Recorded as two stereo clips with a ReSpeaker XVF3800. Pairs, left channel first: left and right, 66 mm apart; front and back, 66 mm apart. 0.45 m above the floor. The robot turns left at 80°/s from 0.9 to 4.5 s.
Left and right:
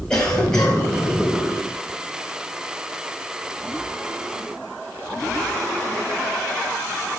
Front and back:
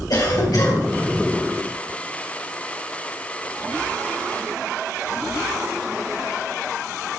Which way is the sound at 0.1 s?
10° left.